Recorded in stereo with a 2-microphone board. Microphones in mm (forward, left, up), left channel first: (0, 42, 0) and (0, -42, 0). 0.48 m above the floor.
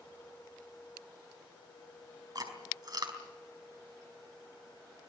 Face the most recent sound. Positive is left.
turn(degrees=-50)  # may be behind; listen again after turning